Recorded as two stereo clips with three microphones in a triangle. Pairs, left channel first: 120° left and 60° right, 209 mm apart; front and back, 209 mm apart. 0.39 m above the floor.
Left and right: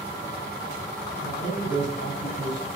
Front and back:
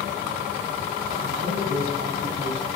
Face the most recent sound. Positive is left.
turn(degrees=120)